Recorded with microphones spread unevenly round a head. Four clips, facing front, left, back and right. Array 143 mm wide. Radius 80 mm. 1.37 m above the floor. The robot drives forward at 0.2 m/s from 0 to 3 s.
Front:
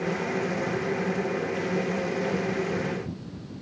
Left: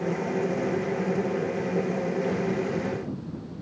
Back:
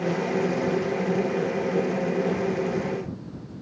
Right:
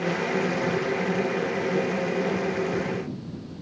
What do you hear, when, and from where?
Only background noise.